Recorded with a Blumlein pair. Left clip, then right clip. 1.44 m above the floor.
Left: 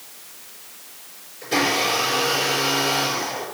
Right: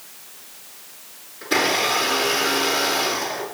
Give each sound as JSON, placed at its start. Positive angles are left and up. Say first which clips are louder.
{"t": 1.4, "sound": "a blender", "louder": "right 1 dB", "azimuth_deg": -35, "distance_m": 4.5}